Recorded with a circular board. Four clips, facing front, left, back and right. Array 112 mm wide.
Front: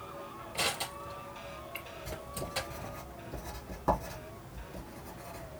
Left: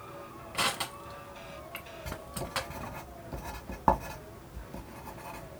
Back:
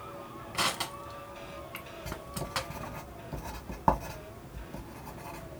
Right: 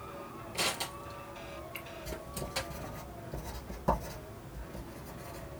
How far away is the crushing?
About 1.5 m.